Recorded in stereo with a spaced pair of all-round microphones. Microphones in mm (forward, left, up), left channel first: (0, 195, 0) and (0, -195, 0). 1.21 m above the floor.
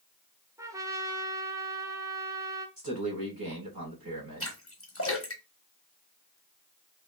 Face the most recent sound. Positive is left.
turn(degrees=35)  # may be behind; listen again after turning